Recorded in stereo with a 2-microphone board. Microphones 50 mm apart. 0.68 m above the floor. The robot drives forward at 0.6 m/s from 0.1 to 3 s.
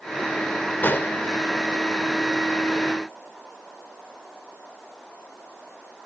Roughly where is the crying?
I don't hear crying.